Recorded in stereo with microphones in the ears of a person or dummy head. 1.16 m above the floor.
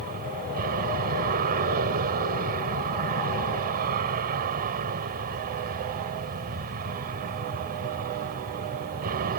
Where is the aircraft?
40° right (ahead or behind).